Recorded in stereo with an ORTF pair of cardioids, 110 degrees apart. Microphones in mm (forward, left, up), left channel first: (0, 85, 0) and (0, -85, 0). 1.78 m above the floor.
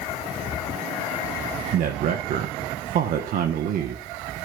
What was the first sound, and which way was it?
A man speaking, 60° right.